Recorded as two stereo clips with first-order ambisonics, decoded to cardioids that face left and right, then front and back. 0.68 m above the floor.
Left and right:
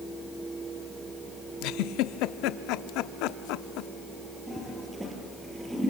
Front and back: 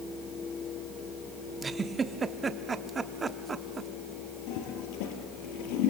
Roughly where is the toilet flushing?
Ahead.